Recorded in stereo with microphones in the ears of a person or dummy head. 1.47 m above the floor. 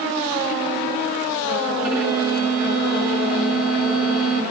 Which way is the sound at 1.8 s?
5° right (ahead or behind).